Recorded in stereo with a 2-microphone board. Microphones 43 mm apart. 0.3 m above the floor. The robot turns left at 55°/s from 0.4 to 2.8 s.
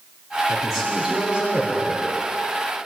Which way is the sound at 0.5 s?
15° left.